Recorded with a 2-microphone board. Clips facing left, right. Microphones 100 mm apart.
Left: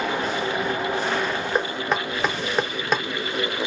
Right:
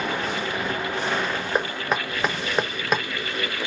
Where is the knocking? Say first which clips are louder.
Even; 5° right (ahead or behind), 1.1 m.